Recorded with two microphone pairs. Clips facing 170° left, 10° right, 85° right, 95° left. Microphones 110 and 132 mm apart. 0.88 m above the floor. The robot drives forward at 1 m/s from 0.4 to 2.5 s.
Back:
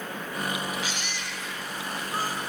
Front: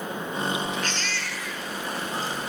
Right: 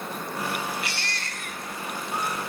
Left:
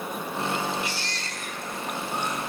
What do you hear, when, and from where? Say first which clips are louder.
0.8 s a baby crying: front 3 dB, left 1 dB; 105° right, 1.7 m; by 2.4 s 140° right, 2.5 m